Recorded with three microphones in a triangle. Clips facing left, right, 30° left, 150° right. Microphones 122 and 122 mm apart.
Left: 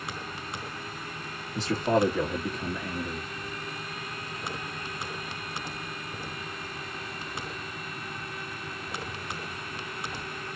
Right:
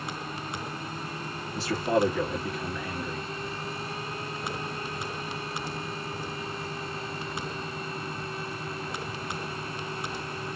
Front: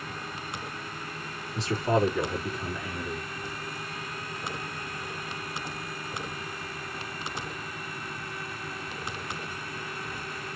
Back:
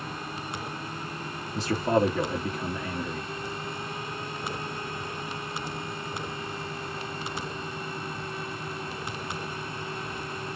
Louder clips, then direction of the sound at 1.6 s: Left 1 dB, back 1 dB; 155° left.